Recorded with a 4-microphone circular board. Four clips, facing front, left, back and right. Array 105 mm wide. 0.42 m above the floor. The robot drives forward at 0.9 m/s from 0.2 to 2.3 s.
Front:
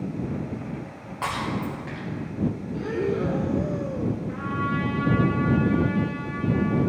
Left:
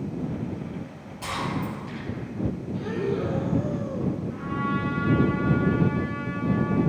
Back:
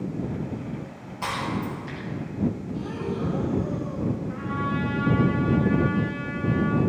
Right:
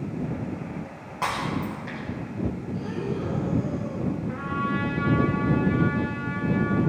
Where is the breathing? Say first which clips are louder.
Left 3 dB, front 4 dB; 20° left, 1.1 m.